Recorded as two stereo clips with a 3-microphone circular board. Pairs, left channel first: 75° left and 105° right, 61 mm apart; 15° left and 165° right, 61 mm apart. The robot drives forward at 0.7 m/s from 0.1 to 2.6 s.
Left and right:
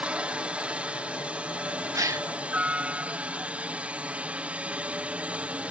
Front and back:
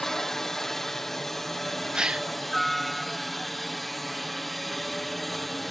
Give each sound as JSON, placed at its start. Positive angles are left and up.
{"t": 0.0, "sound": "a helicopter", "azimuth_deg": -60}
{"t": 1.9, "sound": "a gasp", "azimuth_deg": -90}